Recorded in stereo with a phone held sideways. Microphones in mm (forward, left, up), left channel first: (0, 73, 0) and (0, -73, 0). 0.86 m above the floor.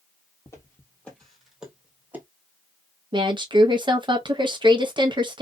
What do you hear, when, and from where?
0.5 s footsteps: 20° left (ahead or behind), 1.2 m; by 2.2 s 15° right (ahead or behind), 1.4 m
3.1 s a woman speaking: 35° right (ahead or behind), 0.8 m